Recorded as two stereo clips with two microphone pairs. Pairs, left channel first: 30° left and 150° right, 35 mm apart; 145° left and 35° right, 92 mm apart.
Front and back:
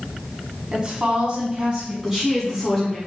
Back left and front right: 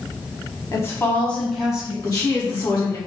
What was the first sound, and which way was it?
A woman speaking, 175° left.